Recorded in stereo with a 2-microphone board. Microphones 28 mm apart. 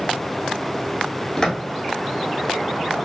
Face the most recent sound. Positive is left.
turn(degrees=25)  # may be behind; listen again after turning